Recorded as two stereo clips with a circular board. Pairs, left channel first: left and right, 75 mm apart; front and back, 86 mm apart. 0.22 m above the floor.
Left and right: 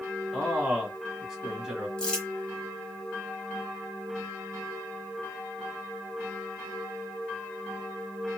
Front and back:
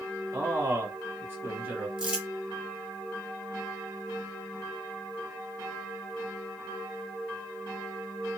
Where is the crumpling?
140° left, 1.2 m.